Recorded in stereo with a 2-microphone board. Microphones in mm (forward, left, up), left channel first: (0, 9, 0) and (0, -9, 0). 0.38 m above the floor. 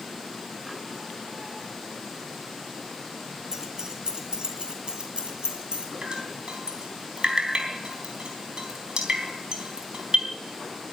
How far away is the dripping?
About 3.5 m.